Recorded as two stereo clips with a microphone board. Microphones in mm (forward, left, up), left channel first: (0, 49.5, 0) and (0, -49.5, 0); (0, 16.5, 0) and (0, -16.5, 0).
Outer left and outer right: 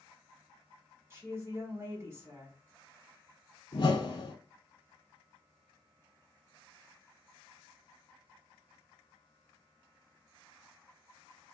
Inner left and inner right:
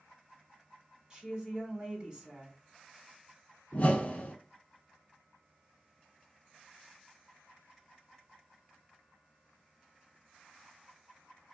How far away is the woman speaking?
About 1.1 m.